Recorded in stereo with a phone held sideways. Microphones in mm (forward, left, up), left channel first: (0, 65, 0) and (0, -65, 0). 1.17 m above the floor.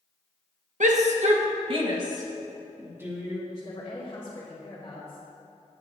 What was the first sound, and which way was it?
A shout, 70° right (ahead or behind).